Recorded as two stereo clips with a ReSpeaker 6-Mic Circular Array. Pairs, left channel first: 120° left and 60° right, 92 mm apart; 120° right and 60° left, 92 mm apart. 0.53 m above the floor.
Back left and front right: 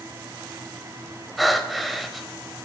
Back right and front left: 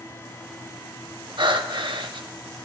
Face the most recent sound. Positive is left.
turn(degrees=30)